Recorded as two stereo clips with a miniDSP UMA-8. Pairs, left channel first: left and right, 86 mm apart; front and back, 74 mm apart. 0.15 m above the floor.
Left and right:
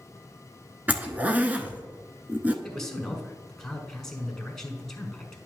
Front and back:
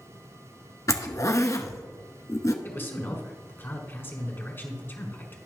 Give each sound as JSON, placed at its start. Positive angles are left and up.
{"t": 0.9, "sound": "a zipper", "azimuth_deg": -25, "distance_m": 0.7}
{"t": 2.6, "sound": "a man speaking", "azimuth_deg": 10, "distance_m": 1.4}